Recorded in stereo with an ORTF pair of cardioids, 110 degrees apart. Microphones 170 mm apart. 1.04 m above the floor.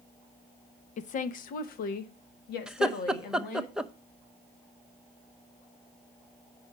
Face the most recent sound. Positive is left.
turn(degrees=-5)